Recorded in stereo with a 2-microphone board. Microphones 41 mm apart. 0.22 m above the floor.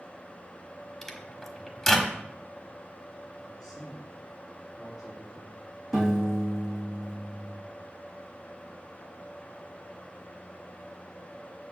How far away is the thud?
I don't hear a thud.